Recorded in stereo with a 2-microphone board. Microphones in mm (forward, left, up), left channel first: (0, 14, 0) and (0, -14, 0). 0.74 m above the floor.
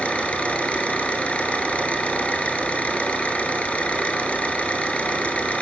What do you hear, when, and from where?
0.0 s an engine running: 55° left (ahead or behind), 5 m